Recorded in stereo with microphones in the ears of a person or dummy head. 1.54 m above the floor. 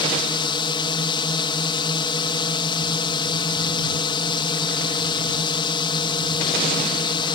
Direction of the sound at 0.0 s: 25° left (ahead or behind).